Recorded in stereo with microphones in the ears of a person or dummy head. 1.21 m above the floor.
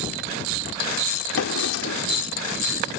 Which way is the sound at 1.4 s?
80° left.